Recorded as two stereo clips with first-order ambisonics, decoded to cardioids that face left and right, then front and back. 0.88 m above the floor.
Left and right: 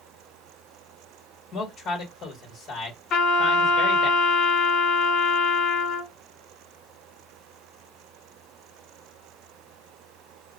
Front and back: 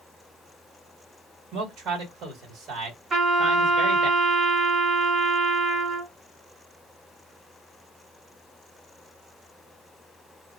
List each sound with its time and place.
1.5 s a man speaking: 145° left, 1.4 m
3.1 s a trumpet: 125° left, 1.2 m